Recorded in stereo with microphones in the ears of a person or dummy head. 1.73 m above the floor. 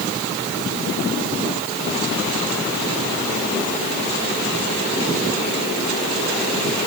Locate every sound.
Only background noise.